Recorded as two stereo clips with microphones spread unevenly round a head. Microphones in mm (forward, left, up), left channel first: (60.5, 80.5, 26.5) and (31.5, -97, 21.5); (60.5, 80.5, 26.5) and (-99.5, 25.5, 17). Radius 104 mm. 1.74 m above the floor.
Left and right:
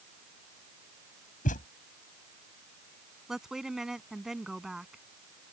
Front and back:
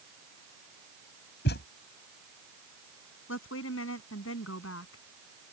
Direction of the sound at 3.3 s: 10° right.